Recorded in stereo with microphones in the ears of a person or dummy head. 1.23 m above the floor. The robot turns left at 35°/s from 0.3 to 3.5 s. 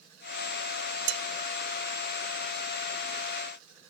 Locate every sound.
1.1 s dishes clattering: 70° right (ahead or behind), 0.5 m